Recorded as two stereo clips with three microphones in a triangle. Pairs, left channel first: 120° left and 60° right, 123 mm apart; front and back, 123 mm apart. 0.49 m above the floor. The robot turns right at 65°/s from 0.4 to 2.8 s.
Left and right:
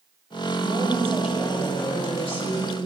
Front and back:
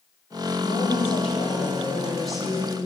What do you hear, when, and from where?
0.6 s a woman speaking: 20° right, 2 m; by 2.9 s 125° left, 2 m